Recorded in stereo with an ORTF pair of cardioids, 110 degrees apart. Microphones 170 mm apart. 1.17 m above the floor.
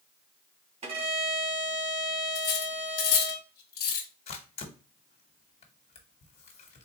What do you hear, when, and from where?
0.8 s a violin: 45° right, 1.4 m
2.4 s cutlery clinking: 65° left, 1.0 m
4.3 s a camera shutter: 40° left, 1.2 m